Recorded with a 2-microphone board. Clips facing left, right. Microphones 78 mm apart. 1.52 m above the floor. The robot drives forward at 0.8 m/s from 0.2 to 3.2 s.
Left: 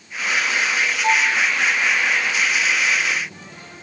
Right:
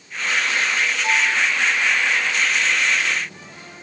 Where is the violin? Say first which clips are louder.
Left 3 dB; 30° left (ahead or behind), 2.5 m; by 1.4 s 25° left (ahead or behind), 2.5 m.